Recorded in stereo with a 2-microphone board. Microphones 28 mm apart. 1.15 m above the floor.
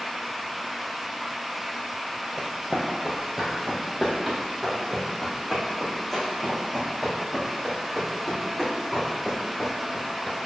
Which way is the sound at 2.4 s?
15° right (ahead or behind).